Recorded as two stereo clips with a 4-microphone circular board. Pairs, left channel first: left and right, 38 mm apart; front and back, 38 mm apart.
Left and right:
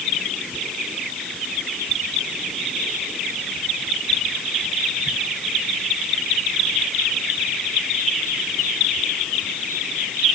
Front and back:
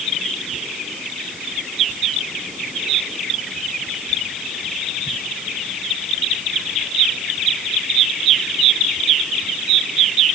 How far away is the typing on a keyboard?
I don't hear typing on a keyboard.